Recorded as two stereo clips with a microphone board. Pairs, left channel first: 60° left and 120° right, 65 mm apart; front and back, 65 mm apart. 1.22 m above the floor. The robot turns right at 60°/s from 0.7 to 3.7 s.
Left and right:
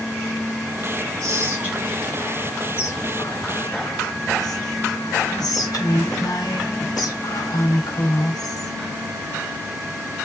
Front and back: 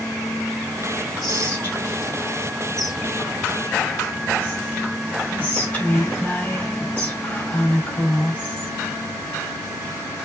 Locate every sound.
1.2 s whispering: 80° right, 3.5 m; by 8.8 s 70° left, 3.5 m